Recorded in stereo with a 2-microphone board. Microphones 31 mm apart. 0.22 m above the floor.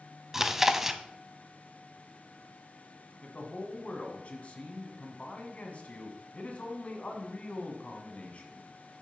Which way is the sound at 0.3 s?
10° right (ahead or behind).